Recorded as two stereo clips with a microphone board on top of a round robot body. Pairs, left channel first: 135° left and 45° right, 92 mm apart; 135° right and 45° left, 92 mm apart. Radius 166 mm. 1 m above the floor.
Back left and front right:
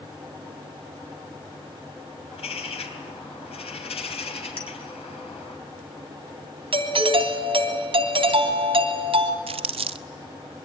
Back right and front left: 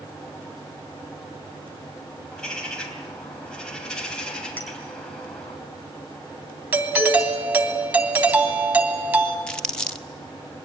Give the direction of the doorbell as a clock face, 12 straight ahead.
1 o'clock.